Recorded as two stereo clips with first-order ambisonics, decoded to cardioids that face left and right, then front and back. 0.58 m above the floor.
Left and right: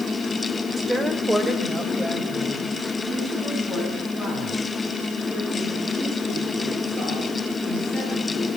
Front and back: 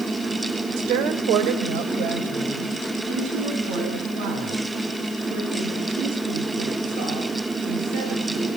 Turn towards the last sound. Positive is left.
turn(degrees=-165)